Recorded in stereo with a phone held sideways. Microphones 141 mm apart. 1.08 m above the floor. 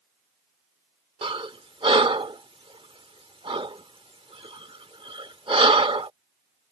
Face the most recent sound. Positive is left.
turn(degrees=-45)  # may be behind; listen again after turning